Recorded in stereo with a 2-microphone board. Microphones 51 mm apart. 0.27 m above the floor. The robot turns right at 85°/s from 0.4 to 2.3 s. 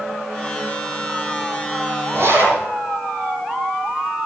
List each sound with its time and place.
2.1 s a zipper: 45° right (ahead or behind), 6.5 m; by 2.6 s 60° right (ahead or behind), 6.5 m